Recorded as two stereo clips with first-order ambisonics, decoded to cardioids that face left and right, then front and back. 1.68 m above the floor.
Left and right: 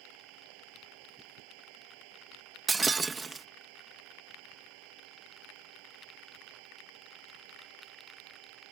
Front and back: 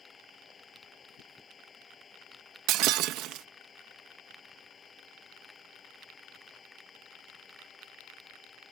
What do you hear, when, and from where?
0.0 s an engine running: 75° right
2.7 s breaking glass: 160° right